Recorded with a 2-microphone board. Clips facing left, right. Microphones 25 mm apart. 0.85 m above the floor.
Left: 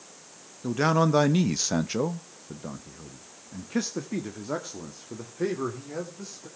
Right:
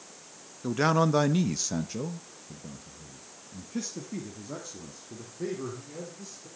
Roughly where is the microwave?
No microwave in this recording.